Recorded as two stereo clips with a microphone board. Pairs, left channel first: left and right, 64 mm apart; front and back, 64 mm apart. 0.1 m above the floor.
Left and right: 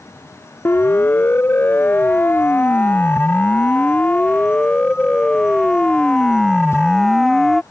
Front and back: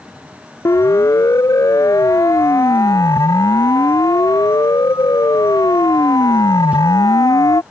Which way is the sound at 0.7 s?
35° left.